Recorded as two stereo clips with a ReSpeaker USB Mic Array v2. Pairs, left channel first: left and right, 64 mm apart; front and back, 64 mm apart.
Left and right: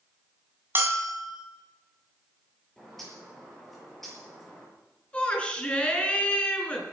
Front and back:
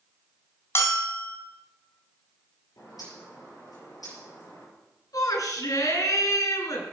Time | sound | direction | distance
0.8 | a bell | 40° right | 2.5 m
2.8 | a bird | 5° left | 7 m
5.1 | a shout | 20° left | 4 m